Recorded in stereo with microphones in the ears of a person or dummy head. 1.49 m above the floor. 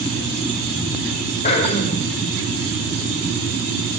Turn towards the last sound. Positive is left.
turn(degrees=35)  # may be behind; listen again after turning